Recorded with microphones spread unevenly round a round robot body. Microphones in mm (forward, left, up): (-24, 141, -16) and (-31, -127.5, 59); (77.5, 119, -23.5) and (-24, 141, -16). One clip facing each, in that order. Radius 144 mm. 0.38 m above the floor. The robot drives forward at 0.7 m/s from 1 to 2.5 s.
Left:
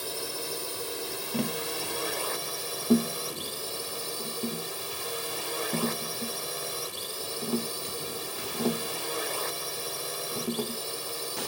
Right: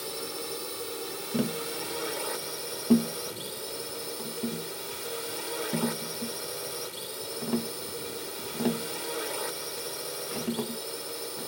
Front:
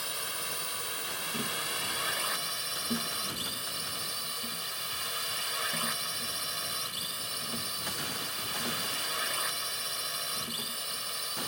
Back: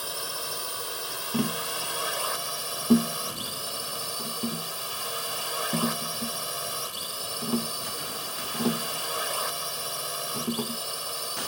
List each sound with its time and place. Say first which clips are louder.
0.0 s a drone: even, back 4 dB; 155° left; by 11.5 s 160° left
1.3 s tapping: right 2 dB, back 10 dB; 170° right